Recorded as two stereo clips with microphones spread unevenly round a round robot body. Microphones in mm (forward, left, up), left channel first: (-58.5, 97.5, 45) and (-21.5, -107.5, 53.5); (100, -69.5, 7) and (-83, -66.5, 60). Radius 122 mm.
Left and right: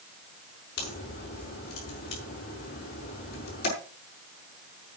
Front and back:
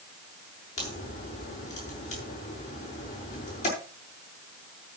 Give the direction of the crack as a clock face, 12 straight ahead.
10 o'clock.